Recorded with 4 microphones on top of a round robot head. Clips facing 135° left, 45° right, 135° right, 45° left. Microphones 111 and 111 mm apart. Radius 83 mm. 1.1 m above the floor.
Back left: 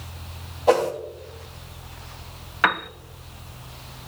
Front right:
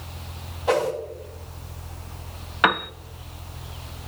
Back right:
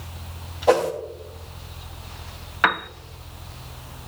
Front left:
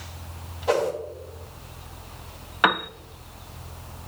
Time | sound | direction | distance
0.7 | a whoosh | 175° right | 2.5 m
2.6 | a piano | 5° right | 0.6 m